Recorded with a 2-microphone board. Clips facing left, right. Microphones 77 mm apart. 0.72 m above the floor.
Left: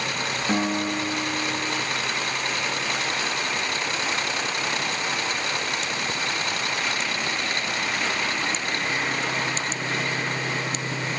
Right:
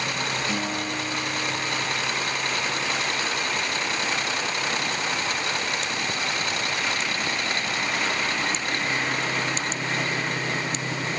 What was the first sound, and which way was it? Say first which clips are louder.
A guitar: left 4 dB; 40° left (ahead or behind).